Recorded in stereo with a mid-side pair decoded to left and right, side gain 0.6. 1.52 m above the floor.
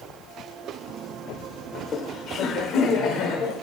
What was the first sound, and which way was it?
Laughter, 40° left.